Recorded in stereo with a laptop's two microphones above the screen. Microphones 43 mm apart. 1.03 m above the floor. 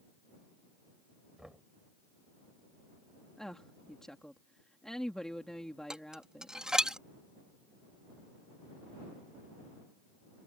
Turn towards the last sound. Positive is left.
turn(degrees=-15)  # may be behind; listen again after turning